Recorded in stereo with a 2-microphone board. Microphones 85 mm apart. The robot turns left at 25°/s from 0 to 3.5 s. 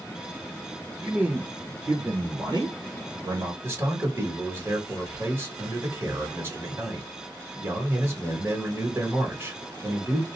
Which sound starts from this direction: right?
A man speaking, at 3.6 s.